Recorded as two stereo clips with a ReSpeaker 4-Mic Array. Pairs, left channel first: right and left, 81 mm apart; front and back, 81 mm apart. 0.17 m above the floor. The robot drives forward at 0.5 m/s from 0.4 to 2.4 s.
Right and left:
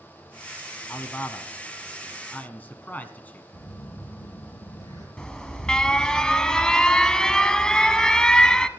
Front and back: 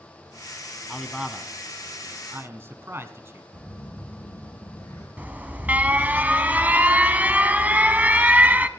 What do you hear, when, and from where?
0.9 s a man speaking: 80° right, 1.1 m; by 3.4 s 145° right, 1.3 m
3.5 s a phone buzzing: 55° right, 4 m
5.2 s an alarm: 155° right, 0.8 m